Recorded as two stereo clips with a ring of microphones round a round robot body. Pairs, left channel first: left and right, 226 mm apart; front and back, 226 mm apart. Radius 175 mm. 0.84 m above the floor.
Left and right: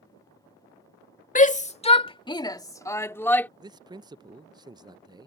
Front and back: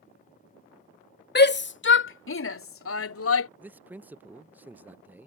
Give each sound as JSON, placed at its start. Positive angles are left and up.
{"t": 1.4, "sound": "a shout", "azimuth_deg": 40}
{"t": 3.6, "sound": "a man speaking", "azimuth_deg": -115}